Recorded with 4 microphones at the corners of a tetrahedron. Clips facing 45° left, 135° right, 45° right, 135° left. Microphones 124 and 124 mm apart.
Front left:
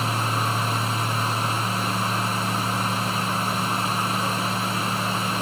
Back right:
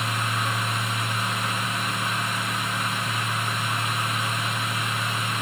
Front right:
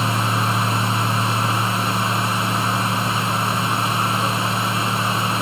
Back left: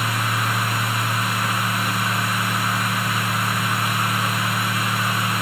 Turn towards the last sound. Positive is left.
No sound to turn to.